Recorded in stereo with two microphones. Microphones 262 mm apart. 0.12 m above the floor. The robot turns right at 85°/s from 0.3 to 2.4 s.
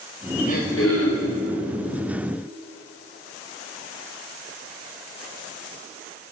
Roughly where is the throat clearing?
Ahead left.